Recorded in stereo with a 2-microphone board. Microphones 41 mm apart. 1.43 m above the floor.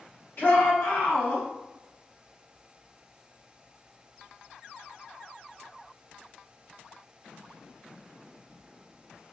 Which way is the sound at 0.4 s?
50° left (ahead or behind).